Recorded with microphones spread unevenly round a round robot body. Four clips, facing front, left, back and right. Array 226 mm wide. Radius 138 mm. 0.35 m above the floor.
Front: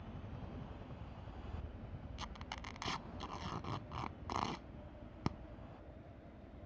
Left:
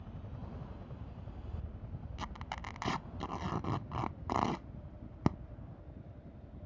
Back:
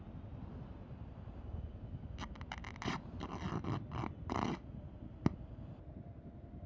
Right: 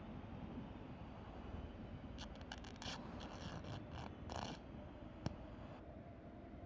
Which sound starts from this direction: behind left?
Tearing paper, at 2.2 s.